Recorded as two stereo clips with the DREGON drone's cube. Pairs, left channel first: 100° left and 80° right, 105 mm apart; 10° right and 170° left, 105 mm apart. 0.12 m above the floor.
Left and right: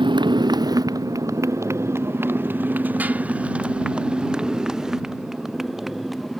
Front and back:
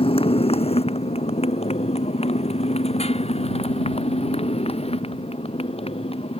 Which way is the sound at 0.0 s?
40° right.